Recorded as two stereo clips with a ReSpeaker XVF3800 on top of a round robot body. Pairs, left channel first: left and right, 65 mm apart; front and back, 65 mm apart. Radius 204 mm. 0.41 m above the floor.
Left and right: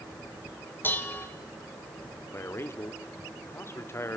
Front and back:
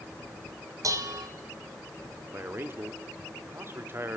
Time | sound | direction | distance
0.8 | dishes clattering | 150° left | 2.5 m
2.3 | a man speaking | 135° left | 2.5 m